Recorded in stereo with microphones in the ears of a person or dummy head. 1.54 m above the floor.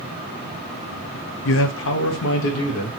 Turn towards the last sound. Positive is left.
turn(degrees=65)  # may be behind; listen again after turning